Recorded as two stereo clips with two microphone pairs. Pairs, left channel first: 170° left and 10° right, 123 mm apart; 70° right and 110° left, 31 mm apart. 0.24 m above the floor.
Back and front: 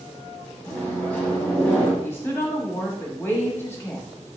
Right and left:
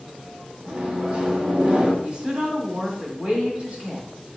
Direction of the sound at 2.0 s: 120° left.